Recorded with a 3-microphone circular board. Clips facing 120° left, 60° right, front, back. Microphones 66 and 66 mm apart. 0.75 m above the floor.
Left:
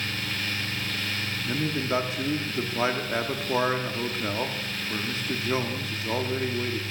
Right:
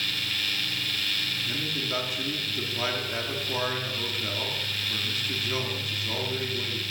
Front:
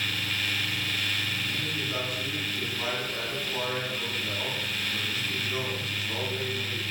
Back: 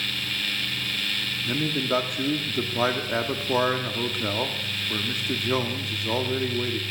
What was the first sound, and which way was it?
A man speaking, straight behind.